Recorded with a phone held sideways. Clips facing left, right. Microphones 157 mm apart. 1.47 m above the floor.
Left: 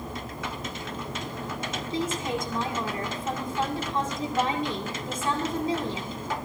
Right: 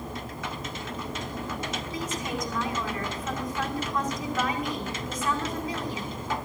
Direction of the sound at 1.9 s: 30° left (ahead or behind).